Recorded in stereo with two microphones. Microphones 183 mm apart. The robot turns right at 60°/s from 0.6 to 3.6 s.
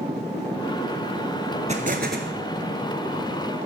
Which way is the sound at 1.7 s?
140° right.